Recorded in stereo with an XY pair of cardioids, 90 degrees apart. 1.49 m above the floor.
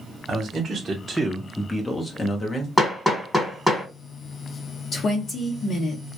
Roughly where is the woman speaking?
Ahead left.